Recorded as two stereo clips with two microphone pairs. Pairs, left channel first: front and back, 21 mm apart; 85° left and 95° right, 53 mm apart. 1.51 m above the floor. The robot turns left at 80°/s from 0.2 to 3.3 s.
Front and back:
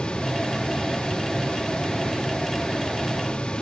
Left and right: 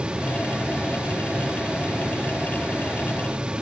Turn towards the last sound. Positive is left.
No sound to turn to.